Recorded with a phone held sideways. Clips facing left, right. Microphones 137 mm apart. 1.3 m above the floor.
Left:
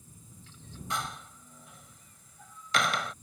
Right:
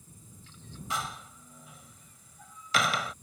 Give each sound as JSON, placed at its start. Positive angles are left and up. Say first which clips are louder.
{"t": 0.9, "sound": "a door slam", "louder": "even", "side_deg": 0}